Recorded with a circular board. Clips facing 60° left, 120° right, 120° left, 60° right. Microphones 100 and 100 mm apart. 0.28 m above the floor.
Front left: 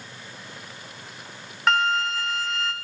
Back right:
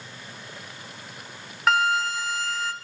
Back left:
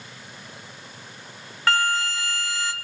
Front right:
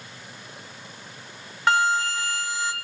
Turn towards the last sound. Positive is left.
turn(degrees=-35)